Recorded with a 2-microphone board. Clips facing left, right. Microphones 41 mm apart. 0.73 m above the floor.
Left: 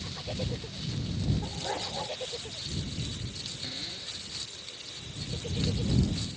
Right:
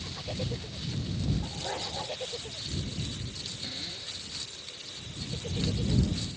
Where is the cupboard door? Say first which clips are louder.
Even; 10° left (ahead or behind).